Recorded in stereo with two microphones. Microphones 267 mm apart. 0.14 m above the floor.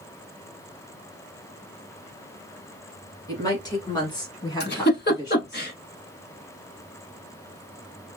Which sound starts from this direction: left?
A giggle, at 4.6 s.